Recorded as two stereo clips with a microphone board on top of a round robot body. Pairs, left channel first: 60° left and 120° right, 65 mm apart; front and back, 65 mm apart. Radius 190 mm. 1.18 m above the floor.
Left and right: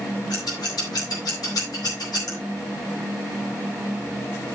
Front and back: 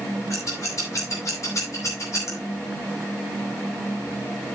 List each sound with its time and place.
0.3 s scissors: 40° left, 4 m